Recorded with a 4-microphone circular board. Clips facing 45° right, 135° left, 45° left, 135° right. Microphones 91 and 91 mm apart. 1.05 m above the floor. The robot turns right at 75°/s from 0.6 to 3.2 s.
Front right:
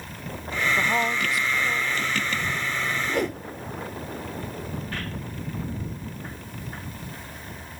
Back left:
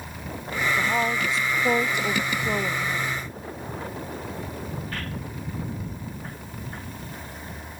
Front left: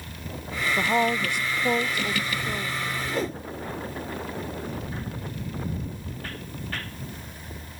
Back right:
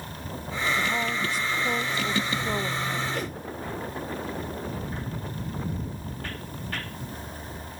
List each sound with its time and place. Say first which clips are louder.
0.8 s a woman speaking: even, front left 4 dB; 30° left; by 3.0 s 165° right
3.1 s a whoosh: front right 7 dB, front left 3 dB; 30° right; by 3.4 s 20° right